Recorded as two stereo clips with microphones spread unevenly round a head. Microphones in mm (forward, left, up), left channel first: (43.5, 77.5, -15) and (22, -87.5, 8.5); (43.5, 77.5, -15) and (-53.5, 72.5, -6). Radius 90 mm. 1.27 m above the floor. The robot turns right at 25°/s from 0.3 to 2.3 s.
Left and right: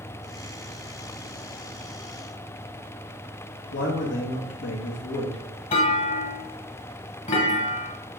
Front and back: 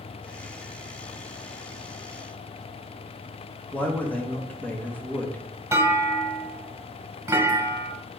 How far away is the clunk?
About 1.6 m.